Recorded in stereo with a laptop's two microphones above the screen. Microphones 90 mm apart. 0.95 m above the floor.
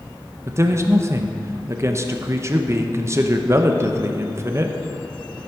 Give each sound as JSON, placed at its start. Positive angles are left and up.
{"t": 0.5, "sound": "a man speaking", "side_deg": -30, "distance_m": 0.8}